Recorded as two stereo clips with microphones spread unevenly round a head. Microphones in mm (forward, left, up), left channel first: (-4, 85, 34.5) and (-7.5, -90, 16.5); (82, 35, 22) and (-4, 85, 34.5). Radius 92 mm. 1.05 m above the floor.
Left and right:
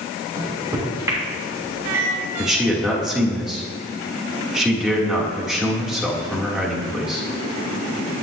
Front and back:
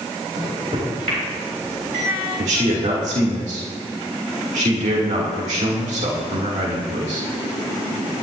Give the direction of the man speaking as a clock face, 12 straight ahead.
6 o'clock.